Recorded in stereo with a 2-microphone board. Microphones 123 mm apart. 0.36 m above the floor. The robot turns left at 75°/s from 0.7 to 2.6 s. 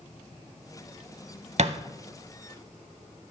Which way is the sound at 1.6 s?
65° right (ahead or behind).